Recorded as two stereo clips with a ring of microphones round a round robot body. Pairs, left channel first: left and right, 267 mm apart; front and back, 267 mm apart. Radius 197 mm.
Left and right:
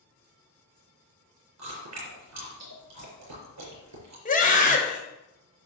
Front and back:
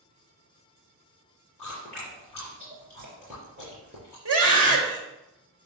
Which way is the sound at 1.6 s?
105° right.